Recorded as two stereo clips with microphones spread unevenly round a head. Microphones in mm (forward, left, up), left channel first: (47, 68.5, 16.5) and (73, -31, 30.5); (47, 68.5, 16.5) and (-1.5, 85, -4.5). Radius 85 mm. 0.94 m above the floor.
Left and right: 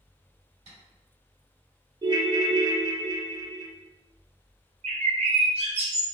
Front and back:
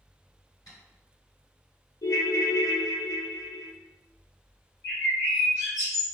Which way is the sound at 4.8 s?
80° right.